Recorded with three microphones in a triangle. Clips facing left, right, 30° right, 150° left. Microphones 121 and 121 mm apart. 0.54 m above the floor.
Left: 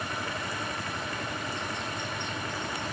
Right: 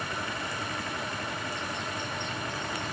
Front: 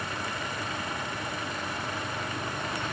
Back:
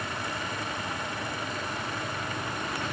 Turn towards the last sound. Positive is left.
No sound to turn to.